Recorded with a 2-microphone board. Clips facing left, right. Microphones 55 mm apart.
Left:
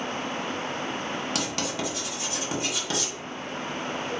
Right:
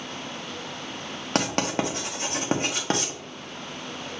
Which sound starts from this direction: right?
Writing, at 1.4 s.